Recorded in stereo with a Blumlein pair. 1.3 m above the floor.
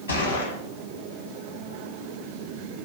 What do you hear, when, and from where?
0.1 s a gunshot: 70° left, 0.8 m